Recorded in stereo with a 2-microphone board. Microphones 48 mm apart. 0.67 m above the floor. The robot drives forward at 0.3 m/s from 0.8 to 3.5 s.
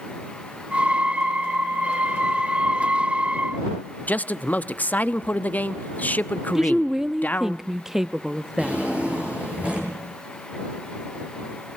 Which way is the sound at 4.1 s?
35° left (ahead or behind).